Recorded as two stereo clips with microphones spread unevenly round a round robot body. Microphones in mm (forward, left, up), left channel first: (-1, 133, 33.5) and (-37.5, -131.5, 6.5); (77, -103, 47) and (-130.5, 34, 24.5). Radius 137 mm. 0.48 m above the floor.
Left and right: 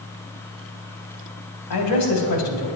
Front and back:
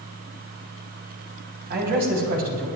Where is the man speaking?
100° left, 3.5 m.